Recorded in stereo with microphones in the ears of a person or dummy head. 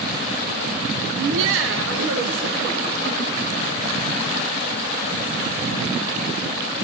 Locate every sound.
1.1 s laughter: 75° right (ahead or behind), 0.7 m; by 3.9 s 50° right (ahead or behind), 3 m